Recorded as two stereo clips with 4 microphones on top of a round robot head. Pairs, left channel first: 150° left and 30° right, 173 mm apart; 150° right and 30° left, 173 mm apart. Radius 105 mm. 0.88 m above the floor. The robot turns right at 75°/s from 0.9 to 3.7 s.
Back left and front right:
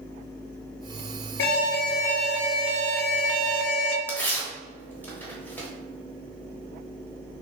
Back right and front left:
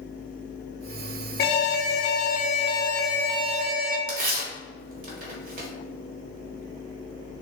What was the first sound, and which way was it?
An alarm, 175° left.